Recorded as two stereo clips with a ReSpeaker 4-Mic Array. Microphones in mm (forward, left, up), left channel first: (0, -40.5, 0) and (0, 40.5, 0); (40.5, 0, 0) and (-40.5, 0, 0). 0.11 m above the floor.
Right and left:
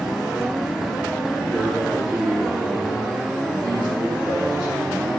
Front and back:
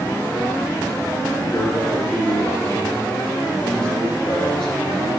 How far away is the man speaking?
About 1.9 m.